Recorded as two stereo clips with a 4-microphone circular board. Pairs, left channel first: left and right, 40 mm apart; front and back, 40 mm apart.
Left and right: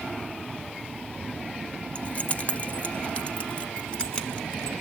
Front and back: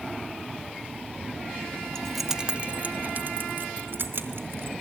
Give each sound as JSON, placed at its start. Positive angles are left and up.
{"t": 1.9, "sound": "keys jangling", "azimuth_deg": 60, "distance_m": 0.9}